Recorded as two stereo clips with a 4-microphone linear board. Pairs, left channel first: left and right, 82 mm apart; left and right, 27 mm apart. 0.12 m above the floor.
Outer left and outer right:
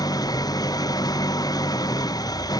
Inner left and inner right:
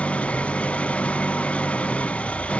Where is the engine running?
50° left (ahead or behind).